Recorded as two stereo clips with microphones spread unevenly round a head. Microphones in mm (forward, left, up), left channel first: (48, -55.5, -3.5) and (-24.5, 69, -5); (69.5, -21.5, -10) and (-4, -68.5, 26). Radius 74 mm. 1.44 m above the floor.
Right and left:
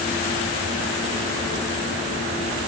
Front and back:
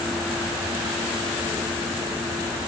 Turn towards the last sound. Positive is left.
No sound to turn to.